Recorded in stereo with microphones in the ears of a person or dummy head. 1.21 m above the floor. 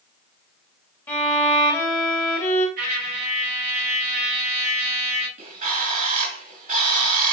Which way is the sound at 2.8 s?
60° right (ahead or behind).